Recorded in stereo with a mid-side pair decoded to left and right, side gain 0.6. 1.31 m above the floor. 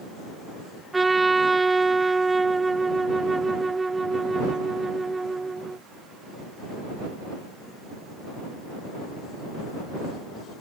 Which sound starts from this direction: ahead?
A trumpet, at 0.9 s.